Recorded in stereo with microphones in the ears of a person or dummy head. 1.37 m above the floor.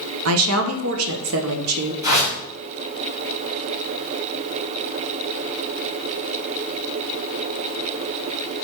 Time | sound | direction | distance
0.2 | a woman speaking | 80° right | 0.7 m
2.0 | a whoosh | 20° right (ahead or behind) | 2 m